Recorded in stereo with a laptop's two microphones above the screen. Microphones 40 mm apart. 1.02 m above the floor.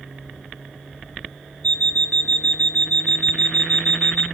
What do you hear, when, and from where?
1.6 s an alarm clock: 35° left (ahead or behind), 0.9 m